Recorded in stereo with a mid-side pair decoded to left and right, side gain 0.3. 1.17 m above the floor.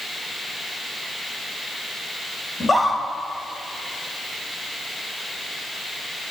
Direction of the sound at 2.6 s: 40° left.